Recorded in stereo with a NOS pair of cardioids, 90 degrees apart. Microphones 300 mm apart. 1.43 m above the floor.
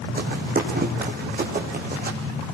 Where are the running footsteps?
30° right, 5.5 m.